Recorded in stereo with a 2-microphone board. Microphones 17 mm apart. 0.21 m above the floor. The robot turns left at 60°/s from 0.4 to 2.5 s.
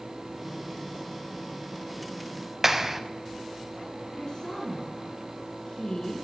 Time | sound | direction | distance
2.6 | a clap | 20° right (ahead or behind) | 0.9 m
4.1 | a woman speaking | 50° left (ahead or behind) | 3.5 m